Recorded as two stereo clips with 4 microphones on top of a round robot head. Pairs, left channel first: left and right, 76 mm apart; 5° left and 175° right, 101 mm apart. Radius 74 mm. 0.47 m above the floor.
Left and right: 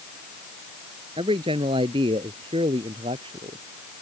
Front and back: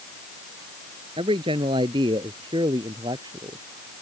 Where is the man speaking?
125° right; by 3.6 s 115° right.